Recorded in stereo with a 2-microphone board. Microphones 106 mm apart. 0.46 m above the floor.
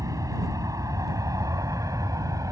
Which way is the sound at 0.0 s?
30° right (ahead or behind).